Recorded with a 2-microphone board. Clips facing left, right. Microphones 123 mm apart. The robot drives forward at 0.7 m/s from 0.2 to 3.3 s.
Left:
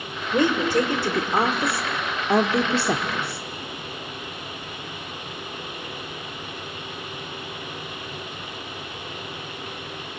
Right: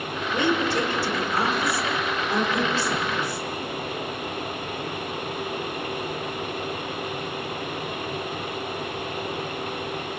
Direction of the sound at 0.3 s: 40° left (ahead or behind).